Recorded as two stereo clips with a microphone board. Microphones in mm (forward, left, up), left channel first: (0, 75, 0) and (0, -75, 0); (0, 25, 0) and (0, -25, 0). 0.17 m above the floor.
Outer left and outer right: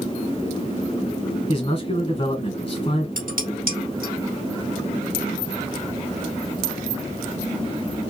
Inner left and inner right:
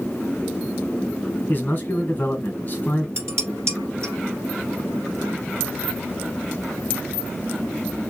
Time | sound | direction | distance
1.5 | a man speaking | 35° left (ahead or behind) | 1.7 m
3.2 | dishes clattering | 70° right (ahead or behind) | 2.5 m